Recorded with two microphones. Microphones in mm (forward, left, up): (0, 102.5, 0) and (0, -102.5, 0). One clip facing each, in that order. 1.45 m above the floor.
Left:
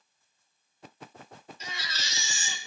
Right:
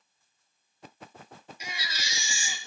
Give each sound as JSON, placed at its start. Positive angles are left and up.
{"t": 1.6, "sound": "a baby crying", "side_deg": -10, "distance_m": 1.6}